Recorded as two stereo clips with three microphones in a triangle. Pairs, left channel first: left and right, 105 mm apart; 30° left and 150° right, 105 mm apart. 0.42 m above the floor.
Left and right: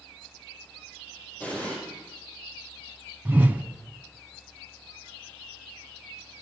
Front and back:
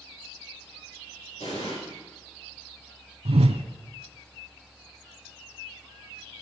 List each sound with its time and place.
1.4 s an explosion: 20° left, 8 m
3.2 s a whoosh: 165° right, 0.7 m